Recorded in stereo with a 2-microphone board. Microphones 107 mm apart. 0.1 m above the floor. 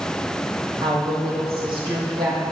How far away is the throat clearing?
No throat clearing in this recording.